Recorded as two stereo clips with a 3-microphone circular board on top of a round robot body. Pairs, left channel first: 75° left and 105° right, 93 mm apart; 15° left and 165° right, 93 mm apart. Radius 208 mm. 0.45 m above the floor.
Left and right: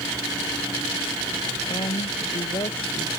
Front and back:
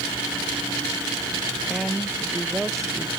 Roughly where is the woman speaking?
Left.